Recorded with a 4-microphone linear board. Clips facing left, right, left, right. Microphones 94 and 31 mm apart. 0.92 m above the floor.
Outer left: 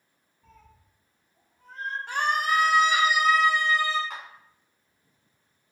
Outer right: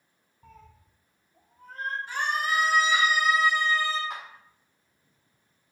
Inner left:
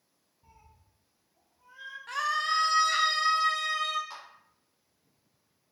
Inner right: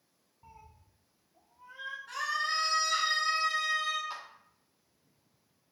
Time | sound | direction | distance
0.4 | a cat meowing | 65° right (ahead or behind) | 1.5 m
2.1 | a scream | 70° left (ahead or behind) | 0.8 m
4.1 | a clap | 10° right (ahead or behind) | 1.9 m